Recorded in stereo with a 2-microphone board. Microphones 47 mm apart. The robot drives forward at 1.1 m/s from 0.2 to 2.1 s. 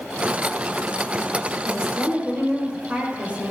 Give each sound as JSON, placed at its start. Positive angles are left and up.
{"t": 1.6, "sound": "a woman speaking", "side_deg": -25, "distance_m": 6.0}